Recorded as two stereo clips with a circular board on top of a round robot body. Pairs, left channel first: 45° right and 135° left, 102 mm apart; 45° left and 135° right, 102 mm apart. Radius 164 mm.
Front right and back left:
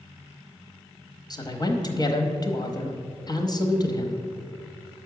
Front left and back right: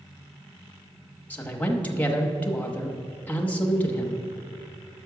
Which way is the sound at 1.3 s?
25° right.